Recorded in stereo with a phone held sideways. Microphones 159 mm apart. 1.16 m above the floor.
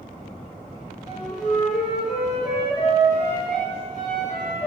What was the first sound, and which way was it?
A flute, 45° left (ahead or behind).